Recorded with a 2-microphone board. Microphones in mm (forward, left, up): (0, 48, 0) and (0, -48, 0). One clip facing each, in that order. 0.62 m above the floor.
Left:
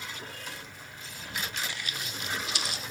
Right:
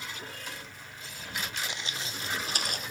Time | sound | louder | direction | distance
1.7 | footsteps | even | 20° right (ahead or behind) | 1.5 m